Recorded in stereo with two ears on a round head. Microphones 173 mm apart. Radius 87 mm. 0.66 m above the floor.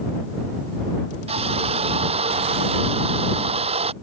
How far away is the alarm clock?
No alarm clock in this recording.